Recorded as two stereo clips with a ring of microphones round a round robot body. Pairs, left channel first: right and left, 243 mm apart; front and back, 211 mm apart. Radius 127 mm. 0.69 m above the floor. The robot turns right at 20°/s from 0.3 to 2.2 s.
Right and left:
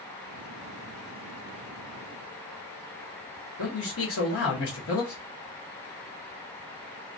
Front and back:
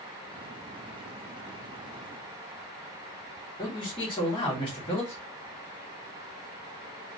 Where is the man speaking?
70° right, 1.3 m.